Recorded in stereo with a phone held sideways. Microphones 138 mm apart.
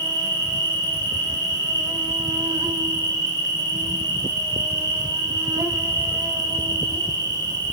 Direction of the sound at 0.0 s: 30° right (ahead or behind).